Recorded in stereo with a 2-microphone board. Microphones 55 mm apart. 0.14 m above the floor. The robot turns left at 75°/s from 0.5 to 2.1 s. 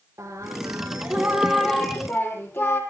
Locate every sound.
0.2 s singing: 110° right, 3 m; by 2.8 s 130° left, 3 m